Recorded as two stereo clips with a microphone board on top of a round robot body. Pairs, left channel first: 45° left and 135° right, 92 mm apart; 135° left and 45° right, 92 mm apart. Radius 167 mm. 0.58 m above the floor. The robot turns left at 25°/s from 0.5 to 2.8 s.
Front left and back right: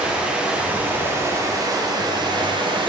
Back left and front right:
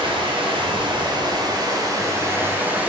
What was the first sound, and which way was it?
Running water, 60° right.